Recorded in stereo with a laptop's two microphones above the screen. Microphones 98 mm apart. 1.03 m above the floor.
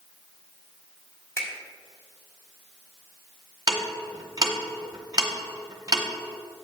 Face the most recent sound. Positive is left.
turn(degrees=-40)  # may be behind; listen again after turning